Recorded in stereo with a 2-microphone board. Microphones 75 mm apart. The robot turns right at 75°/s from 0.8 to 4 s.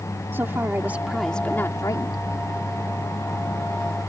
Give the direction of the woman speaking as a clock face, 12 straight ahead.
1 o'clock.